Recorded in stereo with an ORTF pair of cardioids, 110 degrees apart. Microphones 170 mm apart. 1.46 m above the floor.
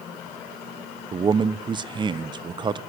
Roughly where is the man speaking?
Ahead right.